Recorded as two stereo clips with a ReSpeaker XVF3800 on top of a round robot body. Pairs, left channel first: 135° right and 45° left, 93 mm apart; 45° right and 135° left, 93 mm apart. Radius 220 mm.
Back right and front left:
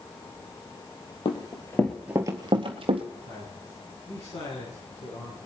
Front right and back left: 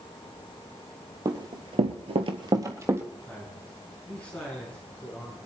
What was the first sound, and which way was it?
Running footsteps, 175° right.